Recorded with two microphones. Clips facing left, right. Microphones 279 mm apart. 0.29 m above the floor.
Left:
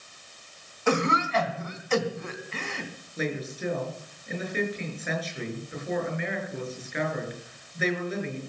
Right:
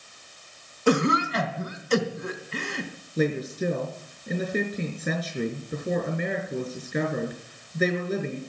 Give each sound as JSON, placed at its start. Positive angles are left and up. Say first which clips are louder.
{"t": 0.9, "sound": "a cough", "louder": "right 4 dB", "side_deg": -35, "distance_m": 3.0}
{"t": 3.2, "sound": "a woman speaking", "louder": "right 6 dB", "side_deg": -45, "distance_m": 5.5}